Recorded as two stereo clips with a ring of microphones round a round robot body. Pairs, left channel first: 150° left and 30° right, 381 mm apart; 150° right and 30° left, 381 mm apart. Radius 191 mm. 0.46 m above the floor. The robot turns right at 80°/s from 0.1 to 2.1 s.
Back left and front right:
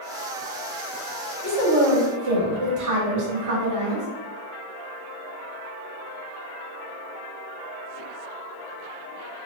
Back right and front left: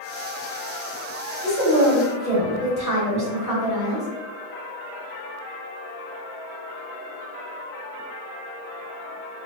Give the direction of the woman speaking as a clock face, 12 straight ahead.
3 o'clock.